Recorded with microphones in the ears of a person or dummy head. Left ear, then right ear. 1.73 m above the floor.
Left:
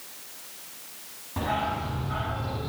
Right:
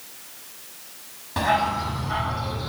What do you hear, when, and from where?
1.4 s a dog barking: 80° right, 6 m